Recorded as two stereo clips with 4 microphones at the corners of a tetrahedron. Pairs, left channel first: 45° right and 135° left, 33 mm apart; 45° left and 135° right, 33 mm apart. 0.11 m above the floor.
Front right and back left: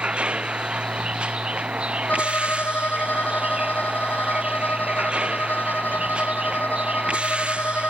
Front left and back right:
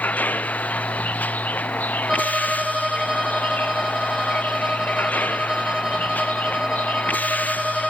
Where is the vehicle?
80° left.